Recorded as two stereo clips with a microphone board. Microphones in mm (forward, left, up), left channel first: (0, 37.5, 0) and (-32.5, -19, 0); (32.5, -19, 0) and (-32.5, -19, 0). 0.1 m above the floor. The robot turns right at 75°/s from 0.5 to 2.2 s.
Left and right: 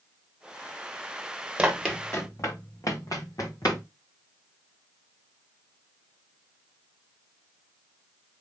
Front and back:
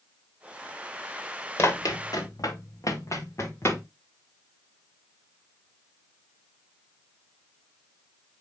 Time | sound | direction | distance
1.6 | running footsteps | 45° right | 2.5 m